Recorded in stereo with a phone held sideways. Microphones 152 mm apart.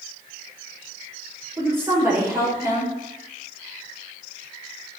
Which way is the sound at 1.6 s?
15° right (ahead or behind).